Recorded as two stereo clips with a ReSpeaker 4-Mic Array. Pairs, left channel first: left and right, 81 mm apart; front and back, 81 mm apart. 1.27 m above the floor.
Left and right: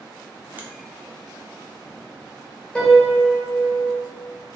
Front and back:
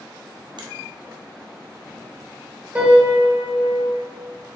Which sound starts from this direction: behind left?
A piano, at 2.8 s.